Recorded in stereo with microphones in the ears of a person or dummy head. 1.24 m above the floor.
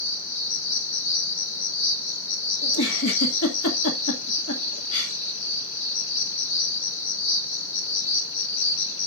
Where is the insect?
70° left (ahead or behind), 2 m.